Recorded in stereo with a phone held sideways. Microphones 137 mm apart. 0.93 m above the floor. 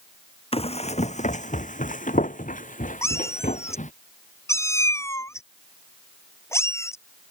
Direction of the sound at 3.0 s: 20° left (ahead or behind).